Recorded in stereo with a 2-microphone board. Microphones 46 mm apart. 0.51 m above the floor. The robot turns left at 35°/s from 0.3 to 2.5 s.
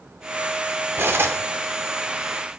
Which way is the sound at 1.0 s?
55° right (ahead or behind).